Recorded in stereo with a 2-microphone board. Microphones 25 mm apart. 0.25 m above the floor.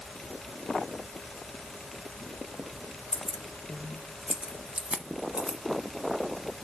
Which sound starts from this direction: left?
Keys jangling, at 3.1 s.